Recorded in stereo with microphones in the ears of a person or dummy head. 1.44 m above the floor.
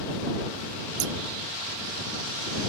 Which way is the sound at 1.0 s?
60° right (ahead or behind).